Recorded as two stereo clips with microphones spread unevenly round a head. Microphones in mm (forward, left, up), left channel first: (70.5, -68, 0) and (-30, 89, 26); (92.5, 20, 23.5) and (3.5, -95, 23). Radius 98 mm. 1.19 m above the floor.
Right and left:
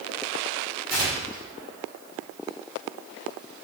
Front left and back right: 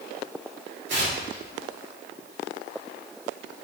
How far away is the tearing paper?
About 2.5 m.